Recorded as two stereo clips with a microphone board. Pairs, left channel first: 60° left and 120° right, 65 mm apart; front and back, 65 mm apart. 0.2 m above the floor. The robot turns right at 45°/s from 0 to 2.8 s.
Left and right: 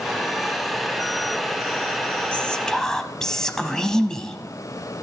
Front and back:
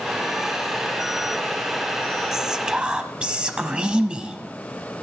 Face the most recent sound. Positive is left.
turn(degrees=130)